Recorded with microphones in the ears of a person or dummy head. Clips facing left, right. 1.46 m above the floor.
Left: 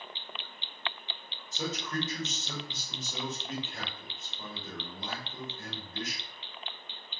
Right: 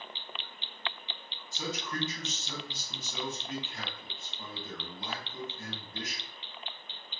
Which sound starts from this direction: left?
A man speaking, at 1.5 s.